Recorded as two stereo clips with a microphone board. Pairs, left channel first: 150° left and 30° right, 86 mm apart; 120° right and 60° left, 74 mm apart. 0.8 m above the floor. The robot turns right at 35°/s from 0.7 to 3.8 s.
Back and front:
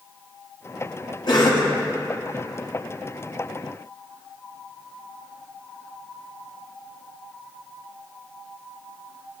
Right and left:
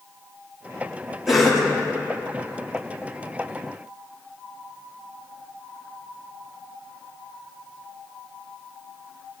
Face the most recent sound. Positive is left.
turn(degrees=-125)